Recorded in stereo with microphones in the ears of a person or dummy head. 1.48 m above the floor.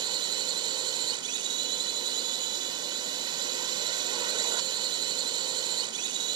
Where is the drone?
30° right (ahead or behind).